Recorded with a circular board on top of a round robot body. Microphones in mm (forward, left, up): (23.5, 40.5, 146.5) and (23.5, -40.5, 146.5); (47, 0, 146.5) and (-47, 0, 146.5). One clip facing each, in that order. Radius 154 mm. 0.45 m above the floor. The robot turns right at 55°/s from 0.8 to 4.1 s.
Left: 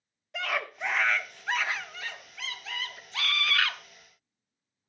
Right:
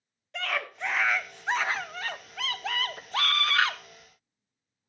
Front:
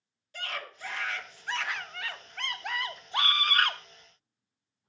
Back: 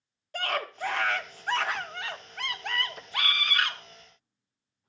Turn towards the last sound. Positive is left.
turn(degrees=-5)